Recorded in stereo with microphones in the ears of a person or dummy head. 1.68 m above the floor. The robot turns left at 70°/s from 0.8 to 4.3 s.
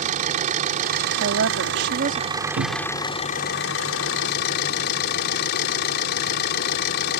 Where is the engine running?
50° right; by 7.2 s 65° left.